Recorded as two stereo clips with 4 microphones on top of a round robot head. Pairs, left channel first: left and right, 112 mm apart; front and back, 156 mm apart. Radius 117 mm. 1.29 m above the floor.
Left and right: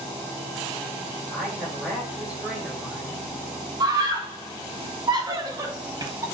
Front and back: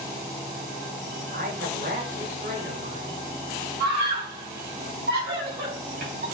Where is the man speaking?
170° right, 7 m.